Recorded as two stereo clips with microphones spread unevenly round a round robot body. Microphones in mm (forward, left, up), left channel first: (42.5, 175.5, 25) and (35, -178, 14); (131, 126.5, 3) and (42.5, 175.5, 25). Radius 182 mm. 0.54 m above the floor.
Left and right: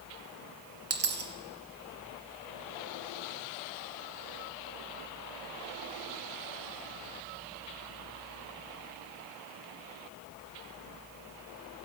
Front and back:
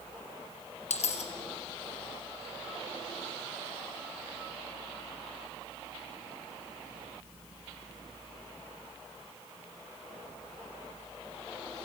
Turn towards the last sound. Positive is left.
turn(degrees=-30)